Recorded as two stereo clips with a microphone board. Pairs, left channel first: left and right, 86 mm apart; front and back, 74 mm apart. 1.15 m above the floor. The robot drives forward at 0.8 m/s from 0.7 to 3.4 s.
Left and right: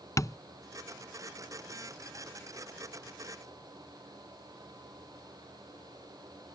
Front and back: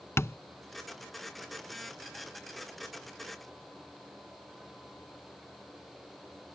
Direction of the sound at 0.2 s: 50° left.